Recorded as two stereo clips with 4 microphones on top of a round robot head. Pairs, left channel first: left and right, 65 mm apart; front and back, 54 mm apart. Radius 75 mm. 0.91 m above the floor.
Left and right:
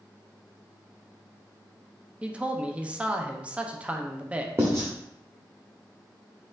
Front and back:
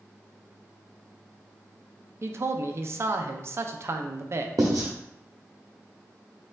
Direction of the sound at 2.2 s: 160° right.